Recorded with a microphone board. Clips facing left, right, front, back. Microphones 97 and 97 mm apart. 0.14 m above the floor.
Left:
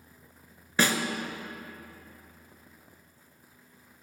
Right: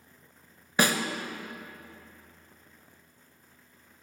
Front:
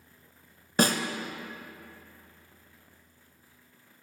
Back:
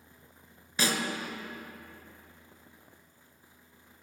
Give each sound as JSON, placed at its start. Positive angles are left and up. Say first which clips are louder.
{"t": 0.8, "sound": "a snare drum", "louder": "right 1 dB, front 6 dB", "azimuth_deg": -15, "distance_m": 0.6}